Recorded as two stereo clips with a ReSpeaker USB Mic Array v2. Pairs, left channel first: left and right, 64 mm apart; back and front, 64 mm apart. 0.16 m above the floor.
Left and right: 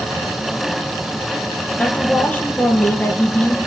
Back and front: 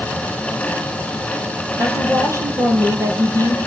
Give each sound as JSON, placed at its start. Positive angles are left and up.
{"t": 1.8, "sound": "a woman speaking", "azimuth_deg": 25, "distance_m": 4.0}